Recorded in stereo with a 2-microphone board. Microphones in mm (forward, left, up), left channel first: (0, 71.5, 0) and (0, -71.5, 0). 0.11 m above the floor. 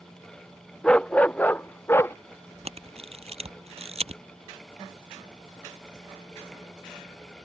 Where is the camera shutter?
50° right (ahead or behind).